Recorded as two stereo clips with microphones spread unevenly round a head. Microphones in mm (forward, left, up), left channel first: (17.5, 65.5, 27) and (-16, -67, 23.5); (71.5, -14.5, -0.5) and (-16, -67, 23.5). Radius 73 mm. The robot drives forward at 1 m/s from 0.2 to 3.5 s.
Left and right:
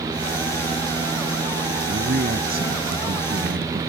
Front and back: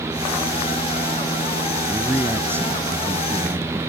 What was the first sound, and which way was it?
A man speaking, 80° right.